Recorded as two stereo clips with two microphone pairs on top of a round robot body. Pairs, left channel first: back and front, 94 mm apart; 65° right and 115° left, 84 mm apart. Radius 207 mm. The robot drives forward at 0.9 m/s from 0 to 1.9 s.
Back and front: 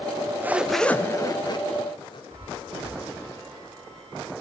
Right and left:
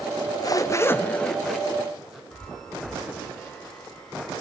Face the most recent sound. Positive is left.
turn(degrees=20)